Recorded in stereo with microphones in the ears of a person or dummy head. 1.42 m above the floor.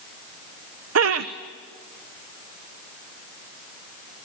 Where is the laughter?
70° right (ahead or behind), 1.0 m.